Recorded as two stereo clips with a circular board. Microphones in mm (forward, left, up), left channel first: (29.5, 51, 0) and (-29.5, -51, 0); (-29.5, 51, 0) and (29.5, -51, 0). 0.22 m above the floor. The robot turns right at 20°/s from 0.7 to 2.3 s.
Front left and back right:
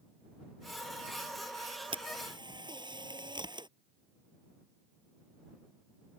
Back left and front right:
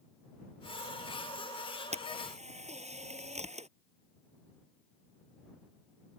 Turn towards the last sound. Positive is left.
turn(degrees=-70)